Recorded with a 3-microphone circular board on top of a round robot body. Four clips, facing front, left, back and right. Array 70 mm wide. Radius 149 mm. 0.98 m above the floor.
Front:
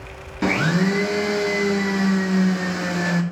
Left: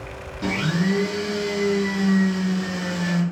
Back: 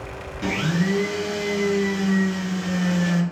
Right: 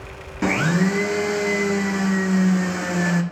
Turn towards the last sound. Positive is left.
turn(degrees=-45)